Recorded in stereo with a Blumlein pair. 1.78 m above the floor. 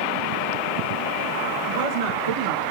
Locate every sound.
1.6 s a woman speaking: 60° right, 3 m; by 2.6 s 75° right, 2.5 m